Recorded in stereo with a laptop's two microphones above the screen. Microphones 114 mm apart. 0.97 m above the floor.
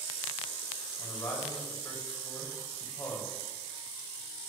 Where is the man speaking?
20° left (ahead or behind), 4.5 m.